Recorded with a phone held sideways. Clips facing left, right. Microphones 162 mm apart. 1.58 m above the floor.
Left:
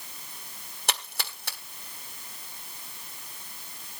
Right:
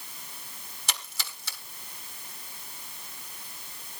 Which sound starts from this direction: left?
A splash, at 0.9 s.